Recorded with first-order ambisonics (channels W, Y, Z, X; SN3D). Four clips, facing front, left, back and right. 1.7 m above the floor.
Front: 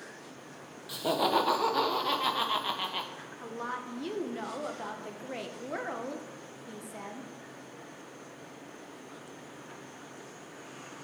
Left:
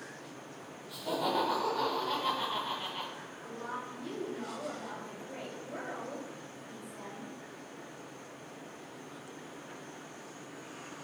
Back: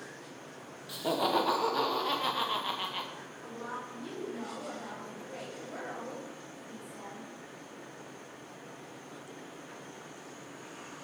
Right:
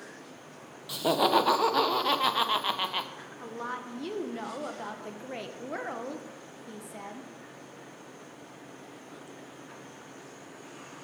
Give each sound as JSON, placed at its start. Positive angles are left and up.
{"t": 0.9, "sound": "laughter", "azimuth_deg": -80, "distance_m": 1.1}
{"t": 3.2, "sound": "a woman speaking", "azimuth_deg": -50, "distance_m": 1.3}